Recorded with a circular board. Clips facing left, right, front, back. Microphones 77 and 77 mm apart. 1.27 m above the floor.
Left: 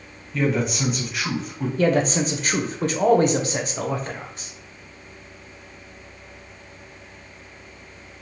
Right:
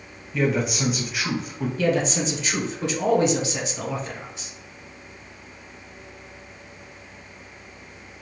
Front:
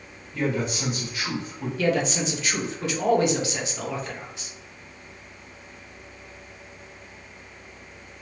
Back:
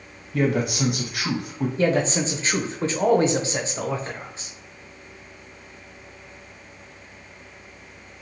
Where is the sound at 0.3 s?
175° right, 0.6 m.